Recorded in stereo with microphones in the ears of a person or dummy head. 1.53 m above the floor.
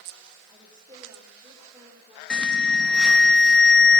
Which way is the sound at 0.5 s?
15° right (ahead or behind).